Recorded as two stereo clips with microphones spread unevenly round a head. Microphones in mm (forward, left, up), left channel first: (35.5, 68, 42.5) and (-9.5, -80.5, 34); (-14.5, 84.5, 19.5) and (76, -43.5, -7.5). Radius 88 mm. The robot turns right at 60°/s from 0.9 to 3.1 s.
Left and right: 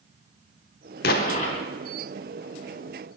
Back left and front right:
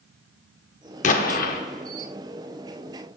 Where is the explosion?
100° left, 0.9 m; by 1.6 s 135° left, 0.9 m.